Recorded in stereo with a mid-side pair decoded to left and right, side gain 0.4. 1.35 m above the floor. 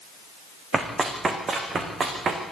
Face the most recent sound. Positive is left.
turn(degrees=-50)